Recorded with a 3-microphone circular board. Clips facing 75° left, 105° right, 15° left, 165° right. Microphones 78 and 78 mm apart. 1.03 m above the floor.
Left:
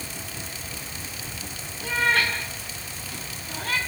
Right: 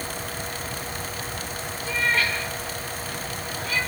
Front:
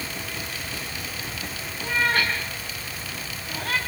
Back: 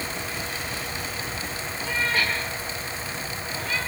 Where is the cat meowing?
55° left, 7.5 m; by 3.8 s 40° left, 5.5 m.